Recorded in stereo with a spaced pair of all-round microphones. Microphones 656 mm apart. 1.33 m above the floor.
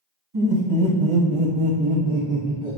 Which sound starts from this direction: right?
Laughter, at 0.3 s.